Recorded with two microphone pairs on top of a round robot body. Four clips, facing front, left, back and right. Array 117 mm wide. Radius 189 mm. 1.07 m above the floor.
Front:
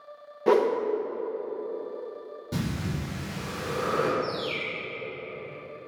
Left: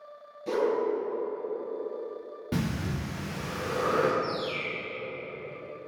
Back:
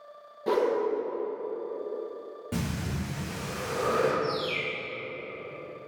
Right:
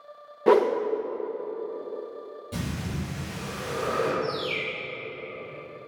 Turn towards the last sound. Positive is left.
turn(degrees=-70)